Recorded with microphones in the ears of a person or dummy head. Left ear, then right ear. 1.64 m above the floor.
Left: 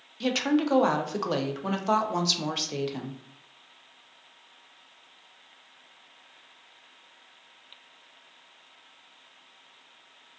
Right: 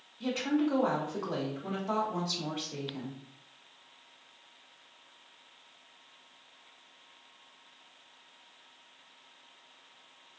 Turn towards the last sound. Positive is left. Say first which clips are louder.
# left 5 dB
turn(degrees=80)